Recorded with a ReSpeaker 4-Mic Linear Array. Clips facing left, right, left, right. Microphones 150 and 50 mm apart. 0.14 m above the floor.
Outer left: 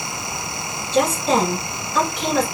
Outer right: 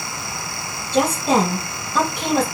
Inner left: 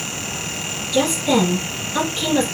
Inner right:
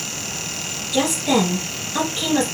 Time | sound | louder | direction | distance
0.9 | a woman speaking | outer right 1 dB, inner left 1 dB | 15° right (ahead or behind) | 3 m